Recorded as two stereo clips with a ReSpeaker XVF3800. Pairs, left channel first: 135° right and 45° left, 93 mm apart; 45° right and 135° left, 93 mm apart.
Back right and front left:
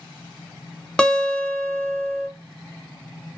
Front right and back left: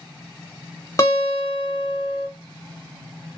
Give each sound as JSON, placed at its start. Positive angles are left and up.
{"t": 1.0, "sound": "a guitar", "azimuth_deg": -60, "distance_m": 0.8}